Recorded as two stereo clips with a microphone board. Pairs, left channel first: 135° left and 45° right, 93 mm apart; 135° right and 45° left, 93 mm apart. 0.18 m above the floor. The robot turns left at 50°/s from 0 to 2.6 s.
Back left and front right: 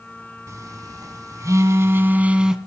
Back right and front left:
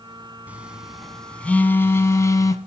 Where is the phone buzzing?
20° right, 0.6 m; by 2.6 s 125° right, 0.6 m.